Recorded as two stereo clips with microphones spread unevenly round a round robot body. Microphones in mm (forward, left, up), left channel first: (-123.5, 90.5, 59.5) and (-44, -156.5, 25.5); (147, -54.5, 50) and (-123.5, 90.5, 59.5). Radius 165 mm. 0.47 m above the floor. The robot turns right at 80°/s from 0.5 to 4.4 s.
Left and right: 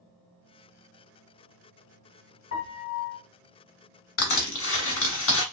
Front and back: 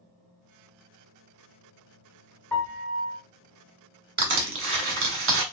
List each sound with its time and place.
2.5 s a piano: 55° left, 0.8 m; by 3.2 s 110° left, 0.8 m
4.2 s crushing: 105° left, 1.3 m; by 5.4 s 125° left, 1.3 m